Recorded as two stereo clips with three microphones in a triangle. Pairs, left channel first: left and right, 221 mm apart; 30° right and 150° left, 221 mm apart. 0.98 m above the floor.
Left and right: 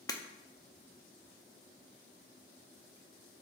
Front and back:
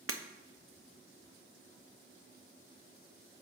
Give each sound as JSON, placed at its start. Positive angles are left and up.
{"t": 0.1, "sound": "breaking glass", "azimuth_deg": 165, "distance_m": 0.6}